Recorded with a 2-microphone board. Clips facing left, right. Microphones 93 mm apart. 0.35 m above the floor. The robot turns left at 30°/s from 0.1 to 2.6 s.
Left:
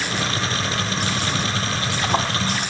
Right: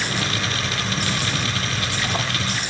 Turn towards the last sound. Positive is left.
turn(degrees=65)  # may be behind; listen again after turning